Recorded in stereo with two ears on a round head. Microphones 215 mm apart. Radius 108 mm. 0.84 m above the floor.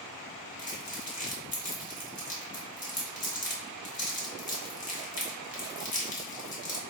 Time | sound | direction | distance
0.6 | crumpling | 35° left (ahead or behind) | 1.4 m